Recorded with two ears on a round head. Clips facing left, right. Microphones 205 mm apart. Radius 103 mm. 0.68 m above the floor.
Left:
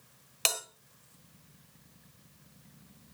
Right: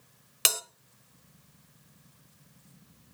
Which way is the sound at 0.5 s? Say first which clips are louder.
Even; 20° right (ahead or behind).